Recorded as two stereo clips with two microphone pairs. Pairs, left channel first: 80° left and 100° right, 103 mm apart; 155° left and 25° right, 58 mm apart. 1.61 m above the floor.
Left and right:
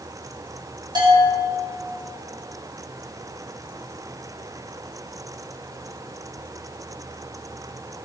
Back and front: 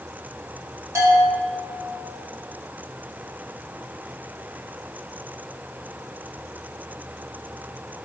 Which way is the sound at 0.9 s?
55° right.